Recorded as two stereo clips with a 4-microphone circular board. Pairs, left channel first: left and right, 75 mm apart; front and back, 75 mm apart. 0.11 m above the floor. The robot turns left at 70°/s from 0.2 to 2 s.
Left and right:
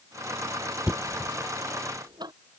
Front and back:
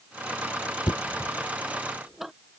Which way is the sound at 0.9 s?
15° right.